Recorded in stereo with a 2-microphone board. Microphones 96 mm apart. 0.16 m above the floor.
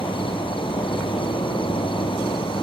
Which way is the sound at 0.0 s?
65° left (ahead or behind).